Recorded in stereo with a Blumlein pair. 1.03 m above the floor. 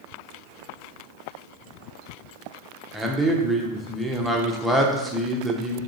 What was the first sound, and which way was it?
A man speaking, straight ahead.